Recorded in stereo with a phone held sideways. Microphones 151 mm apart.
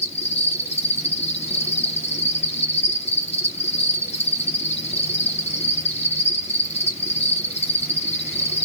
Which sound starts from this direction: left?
An insect, at 0.0 s.